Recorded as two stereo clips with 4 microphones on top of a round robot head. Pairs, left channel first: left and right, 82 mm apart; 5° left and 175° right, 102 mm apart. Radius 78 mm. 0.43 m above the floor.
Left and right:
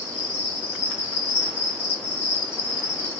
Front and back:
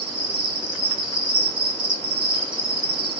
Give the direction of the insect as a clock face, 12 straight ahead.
7 o'clock.